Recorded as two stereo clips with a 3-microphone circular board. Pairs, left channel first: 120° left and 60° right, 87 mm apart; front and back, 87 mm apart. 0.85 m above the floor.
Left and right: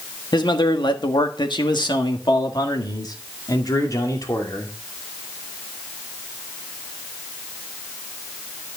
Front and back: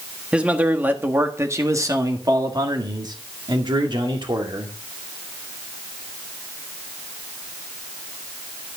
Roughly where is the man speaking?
Left.